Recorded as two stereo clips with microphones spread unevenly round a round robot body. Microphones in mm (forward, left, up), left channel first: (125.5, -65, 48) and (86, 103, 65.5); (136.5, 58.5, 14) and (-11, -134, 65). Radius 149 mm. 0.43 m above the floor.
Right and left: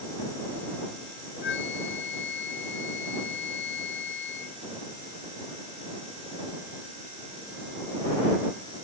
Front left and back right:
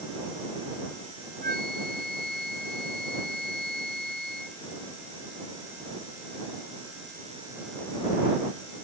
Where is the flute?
75° right.